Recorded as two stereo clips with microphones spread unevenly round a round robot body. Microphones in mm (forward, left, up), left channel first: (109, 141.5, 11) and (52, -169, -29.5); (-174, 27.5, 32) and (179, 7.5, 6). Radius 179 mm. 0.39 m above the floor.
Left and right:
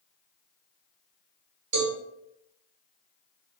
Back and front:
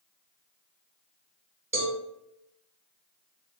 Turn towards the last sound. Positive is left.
turn(degrees=-85)